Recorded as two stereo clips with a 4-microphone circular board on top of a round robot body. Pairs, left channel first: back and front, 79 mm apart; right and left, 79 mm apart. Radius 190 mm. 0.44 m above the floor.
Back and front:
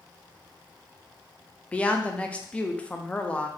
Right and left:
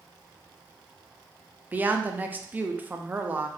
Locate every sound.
1.7 s a woman speaking: 125° left, 0.7 m